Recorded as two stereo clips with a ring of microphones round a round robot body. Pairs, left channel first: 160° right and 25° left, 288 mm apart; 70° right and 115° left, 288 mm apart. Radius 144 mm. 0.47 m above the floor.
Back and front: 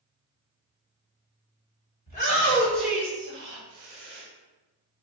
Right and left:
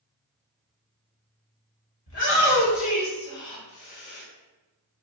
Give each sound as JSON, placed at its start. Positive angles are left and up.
{"t": 2.1, "sound": "a shout", "azimuth_deg": -100, "distance_m": 2.0}